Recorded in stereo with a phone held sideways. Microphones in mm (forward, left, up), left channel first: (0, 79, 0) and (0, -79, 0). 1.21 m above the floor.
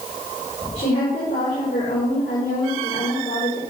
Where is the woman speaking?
70° left (ahead or behind), 4 m.